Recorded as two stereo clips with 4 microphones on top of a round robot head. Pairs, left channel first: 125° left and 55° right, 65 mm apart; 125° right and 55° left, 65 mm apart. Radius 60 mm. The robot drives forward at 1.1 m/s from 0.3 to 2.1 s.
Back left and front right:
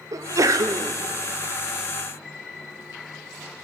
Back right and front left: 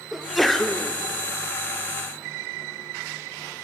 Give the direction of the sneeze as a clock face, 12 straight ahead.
1 o'clock.